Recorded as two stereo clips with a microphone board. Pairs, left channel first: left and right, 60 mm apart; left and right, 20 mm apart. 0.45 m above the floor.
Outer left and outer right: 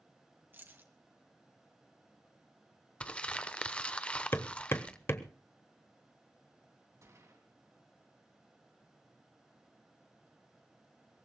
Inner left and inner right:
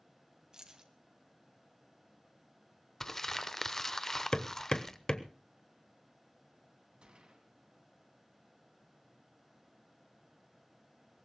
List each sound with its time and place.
0.5 s keys jangling: 35° right (ahead or behind), 1.9 m
3.0 s crumpling: 20° left (ahead or behind), 0.9 m
4.3 s hammering: 40° left (ahead or behind), 1.1 m
7.0 s a gunshot: 55° right (ahead or behind), 2.5 m